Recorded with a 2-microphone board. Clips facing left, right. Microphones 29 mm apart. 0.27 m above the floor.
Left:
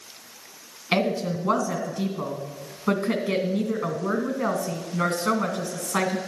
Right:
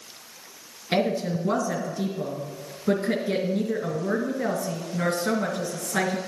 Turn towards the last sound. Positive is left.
turn(degrees=50)  # may be behind; listen again after turning